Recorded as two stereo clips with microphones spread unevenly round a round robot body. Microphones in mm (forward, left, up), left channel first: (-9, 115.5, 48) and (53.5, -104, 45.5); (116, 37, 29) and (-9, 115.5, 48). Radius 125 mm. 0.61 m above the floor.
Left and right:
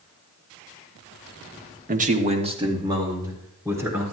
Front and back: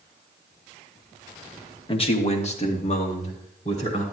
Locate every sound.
1.9 s a man speaking: 45° right, 1.1 m; by 4.0 s 5° left, 3.5 m